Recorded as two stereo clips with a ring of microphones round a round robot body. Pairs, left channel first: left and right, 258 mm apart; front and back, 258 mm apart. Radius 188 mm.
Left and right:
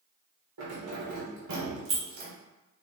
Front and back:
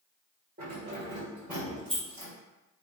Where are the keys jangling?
115° right, 1.6 m; by 2.3 s 80° right, 1.8 m.